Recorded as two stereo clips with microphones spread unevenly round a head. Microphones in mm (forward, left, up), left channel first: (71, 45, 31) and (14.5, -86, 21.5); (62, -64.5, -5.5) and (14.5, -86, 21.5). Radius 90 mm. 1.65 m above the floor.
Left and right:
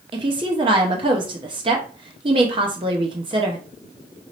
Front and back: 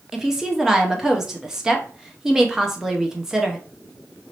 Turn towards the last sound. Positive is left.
turn(degrees=-160)